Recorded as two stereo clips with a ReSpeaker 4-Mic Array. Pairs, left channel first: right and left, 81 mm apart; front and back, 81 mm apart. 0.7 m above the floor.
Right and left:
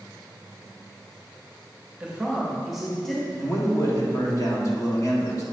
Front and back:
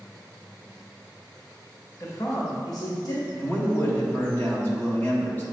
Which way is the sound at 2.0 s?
30° left.